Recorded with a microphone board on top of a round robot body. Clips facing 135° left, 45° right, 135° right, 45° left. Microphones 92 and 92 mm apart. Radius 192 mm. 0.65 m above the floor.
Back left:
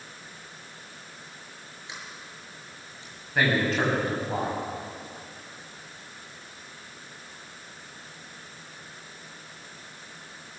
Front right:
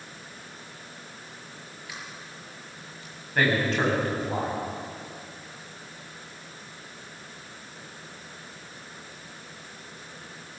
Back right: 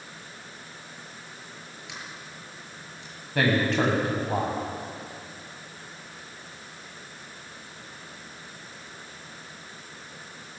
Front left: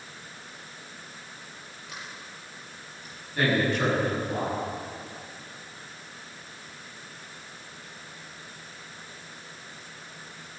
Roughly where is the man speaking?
Behind right.